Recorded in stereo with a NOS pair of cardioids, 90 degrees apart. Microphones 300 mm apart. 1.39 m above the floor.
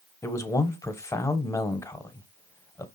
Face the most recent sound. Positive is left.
turn(degrees=10)